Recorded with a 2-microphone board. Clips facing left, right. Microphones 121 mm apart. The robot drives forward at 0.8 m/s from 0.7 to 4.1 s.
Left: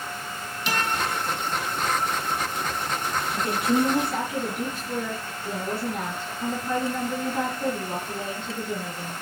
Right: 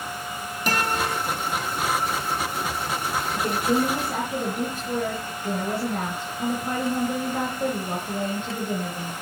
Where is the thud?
No thud in this recording.